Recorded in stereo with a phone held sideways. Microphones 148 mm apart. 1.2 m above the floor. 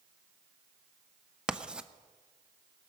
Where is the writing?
5° right (ahead or behind), 0.5 m.